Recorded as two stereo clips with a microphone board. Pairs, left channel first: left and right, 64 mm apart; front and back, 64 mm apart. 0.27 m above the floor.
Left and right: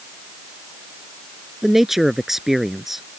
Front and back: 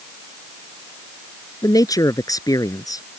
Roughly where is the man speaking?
Ahead.